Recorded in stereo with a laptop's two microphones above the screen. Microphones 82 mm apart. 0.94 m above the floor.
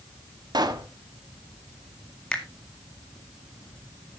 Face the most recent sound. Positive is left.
turn(degrees=10)  # may be behind; listen again after turning